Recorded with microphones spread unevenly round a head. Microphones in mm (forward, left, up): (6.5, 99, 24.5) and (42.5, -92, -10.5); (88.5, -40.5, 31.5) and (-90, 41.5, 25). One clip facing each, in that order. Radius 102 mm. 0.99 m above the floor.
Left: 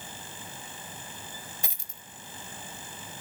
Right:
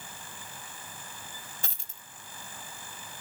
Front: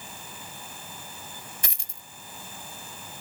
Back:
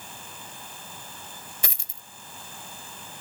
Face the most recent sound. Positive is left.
turn(degrees=170)